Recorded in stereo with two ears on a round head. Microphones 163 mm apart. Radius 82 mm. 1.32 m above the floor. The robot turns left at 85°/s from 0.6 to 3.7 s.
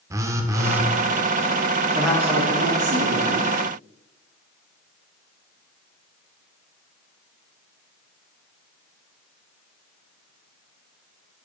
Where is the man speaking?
10° left, 2 m; by 3.5 s 120° right, 2 m.